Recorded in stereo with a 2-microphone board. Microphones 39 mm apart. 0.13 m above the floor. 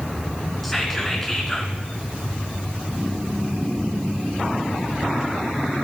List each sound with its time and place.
0.6 s whispering: 5° left (ahead or behind), 1.2 m